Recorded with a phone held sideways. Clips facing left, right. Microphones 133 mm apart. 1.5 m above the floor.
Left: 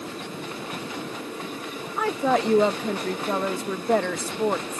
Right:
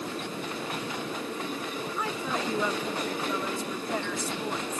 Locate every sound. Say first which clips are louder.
2.0 s a woman speaking: left 11 dB; 70° left (ahead or behind)